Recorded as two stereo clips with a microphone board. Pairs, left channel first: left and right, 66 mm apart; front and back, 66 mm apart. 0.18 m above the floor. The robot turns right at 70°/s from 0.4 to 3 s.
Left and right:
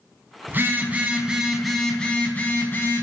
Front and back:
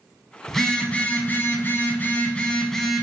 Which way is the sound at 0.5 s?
80° right.